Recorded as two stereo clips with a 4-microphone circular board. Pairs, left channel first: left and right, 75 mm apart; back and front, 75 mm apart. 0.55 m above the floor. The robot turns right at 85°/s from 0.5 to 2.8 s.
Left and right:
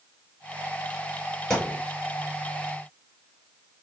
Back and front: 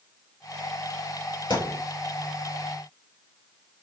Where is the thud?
170° left, 6 m; by 1.8 s 160° right, 6 m.